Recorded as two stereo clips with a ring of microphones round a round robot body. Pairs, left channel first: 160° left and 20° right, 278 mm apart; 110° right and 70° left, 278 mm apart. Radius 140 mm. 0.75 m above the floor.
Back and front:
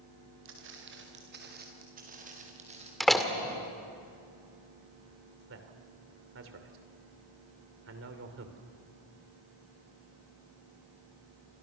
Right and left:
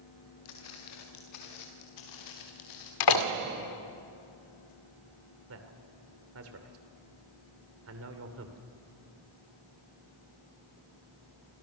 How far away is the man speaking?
About 2.5 m.